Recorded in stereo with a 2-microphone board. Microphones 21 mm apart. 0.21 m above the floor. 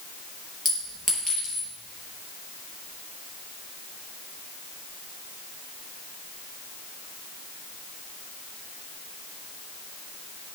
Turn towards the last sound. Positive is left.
turn(degrees=15)  # may be behind; listen again after turning